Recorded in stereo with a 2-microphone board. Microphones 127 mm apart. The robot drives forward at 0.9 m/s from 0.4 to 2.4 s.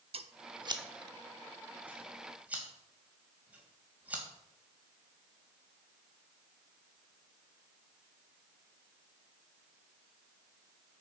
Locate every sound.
0.1 s scissors: 50° right (ahead or behind), 0.6 m; by 4.2 s 10° right (ahead or behind), 2 m